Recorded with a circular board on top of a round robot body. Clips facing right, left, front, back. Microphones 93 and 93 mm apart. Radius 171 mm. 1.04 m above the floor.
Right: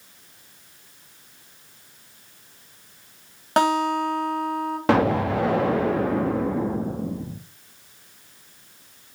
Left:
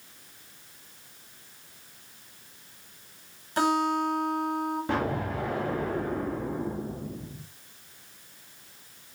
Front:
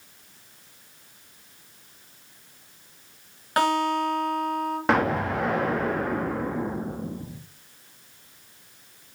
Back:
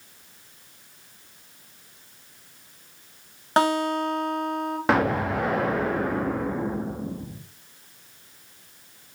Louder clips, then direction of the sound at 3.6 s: Right 5 dB, back 1 dB; 115° right.